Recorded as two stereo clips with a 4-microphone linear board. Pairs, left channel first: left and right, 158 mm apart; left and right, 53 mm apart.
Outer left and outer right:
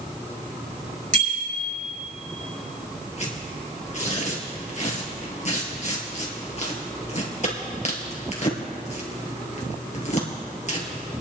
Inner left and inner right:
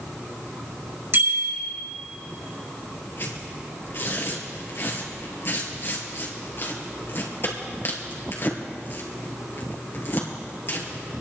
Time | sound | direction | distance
1.1 | a bicycle bell | 60° right (ahead or behind) | 5.5 m
3.2 | tearing paper | 50° left (ahead or behind) | 2.5 m